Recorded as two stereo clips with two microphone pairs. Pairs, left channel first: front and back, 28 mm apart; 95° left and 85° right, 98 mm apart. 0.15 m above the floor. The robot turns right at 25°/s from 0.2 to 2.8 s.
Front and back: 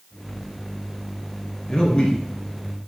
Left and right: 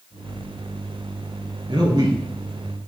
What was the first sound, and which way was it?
A man speaking, 55° right.